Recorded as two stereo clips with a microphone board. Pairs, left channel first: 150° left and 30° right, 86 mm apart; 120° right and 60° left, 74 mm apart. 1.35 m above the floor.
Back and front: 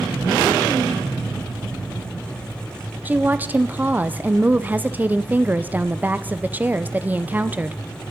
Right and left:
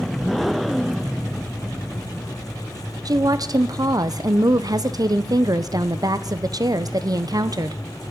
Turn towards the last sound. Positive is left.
turn(degrees=40)